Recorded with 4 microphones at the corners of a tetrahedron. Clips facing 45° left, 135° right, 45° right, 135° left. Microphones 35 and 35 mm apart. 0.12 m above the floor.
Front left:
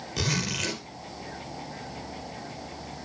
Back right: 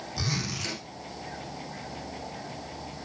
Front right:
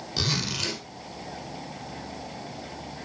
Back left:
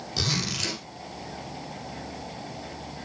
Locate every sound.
0.2 s a zipper: 40° left, 4 m